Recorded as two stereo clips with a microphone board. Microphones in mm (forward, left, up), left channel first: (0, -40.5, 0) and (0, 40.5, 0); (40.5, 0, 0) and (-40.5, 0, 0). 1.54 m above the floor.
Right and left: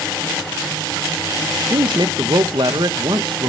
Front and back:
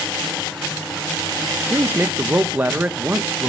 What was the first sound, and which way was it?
A woman speaking, 110° left.